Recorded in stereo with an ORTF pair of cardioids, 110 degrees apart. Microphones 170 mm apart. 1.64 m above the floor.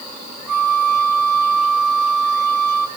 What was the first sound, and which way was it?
A flute, 5° left.